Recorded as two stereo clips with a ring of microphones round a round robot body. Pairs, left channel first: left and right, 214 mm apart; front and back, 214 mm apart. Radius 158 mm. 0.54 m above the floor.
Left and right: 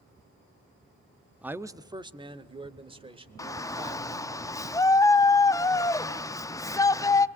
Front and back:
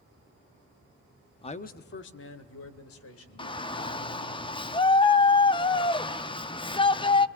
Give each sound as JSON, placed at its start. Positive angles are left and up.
{"t": 1.4, "sound": "a man speaking", "azimuth_deg": -15, "distance_m": 0.6}
{"t": 3.4, "sound": "a shout", "azimuth_deg": 35, "distance_m": 0.6}